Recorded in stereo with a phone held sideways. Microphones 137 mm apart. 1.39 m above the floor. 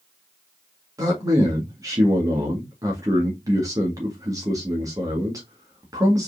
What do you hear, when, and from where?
1.0 s a man speaking: 25° right (ahead or behind), 1.9 m